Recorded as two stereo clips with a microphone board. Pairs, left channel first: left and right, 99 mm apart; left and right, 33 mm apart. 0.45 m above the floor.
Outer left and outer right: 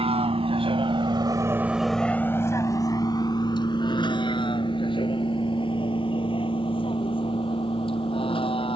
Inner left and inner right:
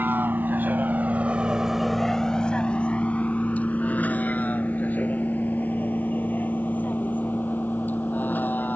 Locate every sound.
0.0 s a vehicle: 80° right; by 8.8 s 60° left (ahead or behind)